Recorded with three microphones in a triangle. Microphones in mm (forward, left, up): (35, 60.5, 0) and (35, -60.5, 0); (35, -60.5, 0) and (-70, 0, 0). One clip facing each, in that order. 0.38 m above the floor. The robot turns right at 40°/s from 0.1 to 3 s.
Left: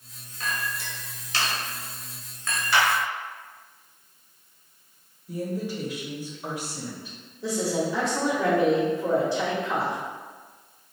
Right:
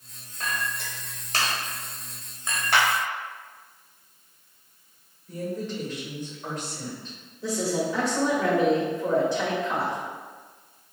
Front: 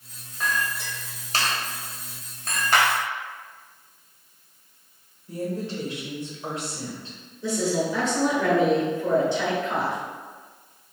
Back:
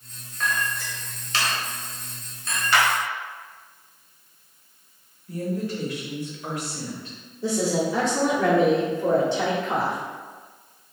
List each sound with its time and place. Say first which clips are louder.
0.4 s a clink: even, even; 105° right, 1.3 m; by 2.6 s 15° right, 1.3 m
2.7 s a clap: even, even; 70° right, 1.3 m; by 2.9 s 65° right, 1.3 m
5.3 s a woman speaking: left 1 dB, back 1 dB; 15° left, 1.4 m
7.4 s a woman speaking: even, back 1 dB; straight behind, 1.1 m